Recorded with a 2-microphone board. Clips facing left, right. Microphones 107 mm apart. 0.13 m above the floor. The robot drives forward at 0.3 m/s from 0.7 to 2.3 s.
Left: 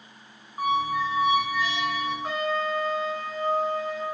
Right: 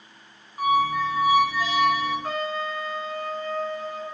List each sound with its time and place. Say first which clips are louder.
0.6 s a squeak: right 3 dB; 25° left (ahead or behind), 0.6 m; by 2.1 s 20° left (ahead or behind), 0.7 m
2.2 s a trumpet: left 1 dB; 25° left (ahead or behind), 0.8 m